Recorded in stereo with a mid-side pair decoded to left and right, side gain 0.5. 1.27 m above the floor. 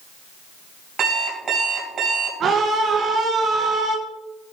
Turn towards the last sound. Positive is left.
turn(degrees=-55)